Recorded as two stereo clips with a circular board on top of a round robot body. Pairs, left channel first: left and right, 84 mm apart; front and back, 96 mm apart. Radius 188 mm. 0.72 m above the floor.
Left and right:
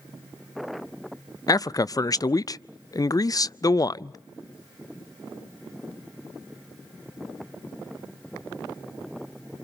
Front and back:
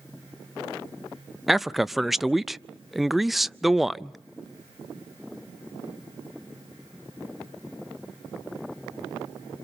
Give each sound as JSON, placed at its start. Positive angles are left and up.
{"t": 1.5, "sound": "a man speaking", "azimuth_deg": 95, "distance_m": 0.6}